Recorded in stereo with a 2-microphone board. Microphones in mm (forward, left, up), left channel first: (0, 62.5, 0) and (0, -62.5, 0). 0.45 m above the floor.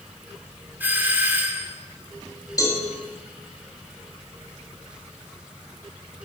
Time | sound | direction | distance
0.8 | a doorbell | 15° right (ahead or behind) | 1.2 m
2.6 | a cowbell | 25° left (ahead or behind) | 2.5 m